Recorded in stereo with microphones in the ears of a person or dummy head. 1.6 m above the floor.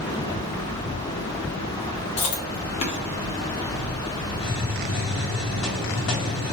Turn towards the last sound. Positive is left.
turn(degrees=60)  # may be behind; listen again after turning